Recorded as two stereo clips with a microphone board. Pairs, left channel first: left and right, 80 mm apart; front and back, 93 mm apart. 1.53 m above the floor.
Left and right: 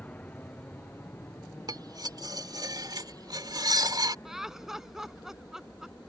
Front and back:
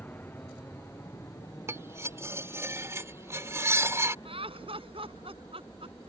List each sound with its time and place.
0.0 s an aircraft: 40° left; by 6.1 s 35° left
1.7 s cutlery clinking: 120° right
4.2 s laughter: 175° right